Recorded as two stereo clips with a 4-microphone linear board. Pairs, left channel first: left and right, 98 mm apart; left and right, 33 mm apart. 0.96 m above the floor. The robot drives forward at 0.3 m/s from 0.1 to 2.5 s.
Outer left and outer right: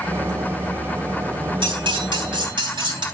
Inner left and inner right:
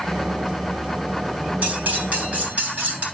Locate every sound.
1.6 s cutlery clinking: 55° right (ahead or behind), 3.5 m; by 3.0 s 50° right (ahead or behind), 3.5 m